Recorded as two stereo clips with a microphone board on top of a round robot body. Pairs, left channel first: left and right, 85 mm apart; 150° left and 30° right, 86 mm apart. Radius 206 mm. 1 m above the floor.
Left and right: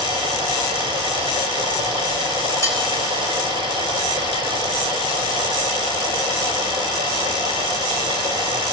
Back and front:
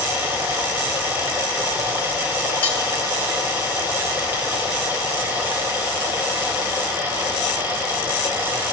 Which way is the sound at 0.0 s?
95° right.